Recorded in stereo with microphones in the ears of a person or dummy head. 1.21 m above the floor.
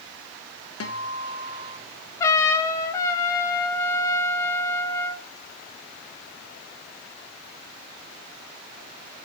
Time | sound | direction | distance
0.8 | a guitar | 65° left (ahead or behind) | 1.1 m
2.2 | a trumpet | 15° left (ahead or behind) | 0.6 m